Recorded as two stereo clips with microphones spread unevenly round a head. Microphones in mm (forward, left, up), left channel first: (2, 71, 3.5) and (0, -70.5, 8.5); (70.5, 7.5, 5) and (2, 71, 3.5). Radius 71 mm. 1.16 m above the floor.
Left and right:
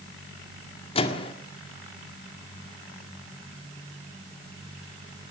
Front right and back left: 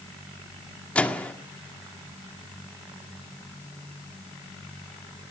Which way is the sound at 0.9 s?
35° left.